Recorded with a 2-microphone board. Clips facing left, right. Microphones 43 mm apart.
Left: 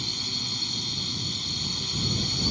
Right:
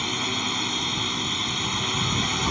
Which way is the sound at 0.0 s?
50° right (ahead or behind).